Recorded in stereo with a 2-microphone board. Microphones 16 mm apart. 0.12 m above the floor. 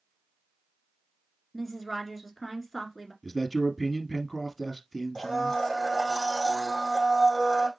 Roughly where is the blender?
Left.